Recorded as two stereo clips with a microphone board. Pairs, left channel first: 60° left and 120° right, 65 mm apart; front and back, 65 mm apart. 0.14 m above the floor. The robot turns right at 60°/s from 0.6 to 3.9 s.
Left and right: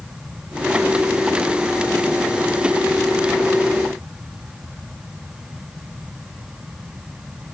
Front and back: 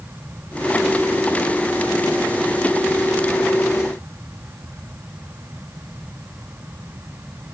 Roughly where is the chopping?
No chopping in this recording.